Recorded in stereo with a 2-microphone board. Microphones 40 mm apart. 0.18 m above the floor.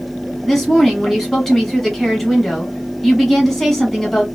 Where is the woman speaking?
5° left (ahead or behind), 1.5 m.